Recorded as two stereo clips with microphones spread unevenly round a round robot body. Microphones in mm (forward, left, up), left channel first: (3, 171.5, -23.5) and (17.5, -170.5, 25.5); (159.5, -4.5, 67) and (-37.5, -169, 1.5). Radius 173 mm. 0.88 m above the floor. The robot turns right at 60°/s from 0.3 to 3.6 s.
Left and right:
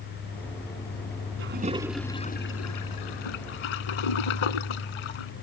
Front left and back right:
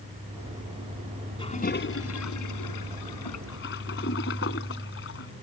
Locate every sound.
1.4 s a toilet flushing: 30° right; by 5.3 s 100° left